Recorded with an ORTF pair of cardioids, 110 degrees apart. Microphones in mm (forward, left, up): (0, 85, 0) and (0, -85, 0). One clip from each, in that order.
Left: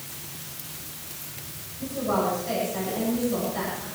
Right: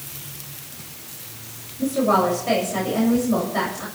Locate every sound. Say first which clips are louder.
1.8 s a woman speaking: right 7 dB; 60° right, 7.5 m